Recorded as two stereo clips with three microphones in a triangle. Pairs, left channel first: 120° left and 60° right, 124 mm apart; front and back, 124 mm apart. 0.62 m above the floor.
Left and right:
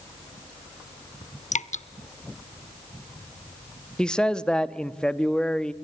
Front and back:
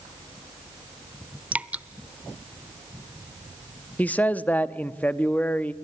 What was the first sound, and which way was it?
Dripping, 105° left.